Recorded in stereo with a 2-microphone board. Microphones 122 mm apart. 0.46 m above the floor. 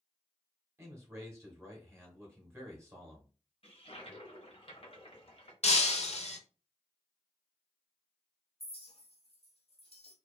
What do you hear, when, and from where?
0.8 s a man speaking: 20° right (ahead or behind), 0.9 m
3.6 s a toilet flushing: 50° left (ahead or behind), 0.8 m
5.6 s breaking glass: 65° left (ahead or behind), 0.5 m
8.6 s a clink: 55° left (ahead or behind), 0.7 m